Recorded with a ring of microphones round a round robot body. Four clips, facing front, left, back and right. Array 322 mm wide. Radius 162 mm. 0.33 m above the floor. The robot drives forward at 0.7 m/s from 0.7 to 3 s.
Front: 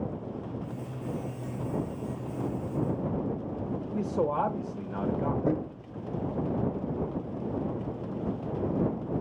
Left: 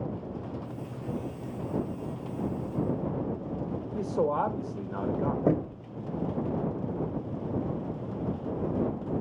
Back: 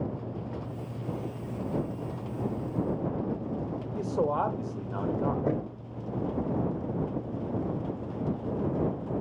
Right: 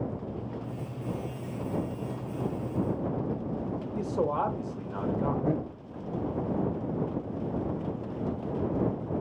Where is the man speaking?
135° left, 0.9 m.